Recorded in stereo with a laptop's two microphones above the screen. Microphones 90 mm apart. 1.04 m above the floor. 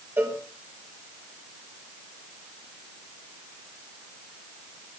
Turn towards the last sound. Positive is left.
turn(degrees=-25)  # may be behind; listen again after turning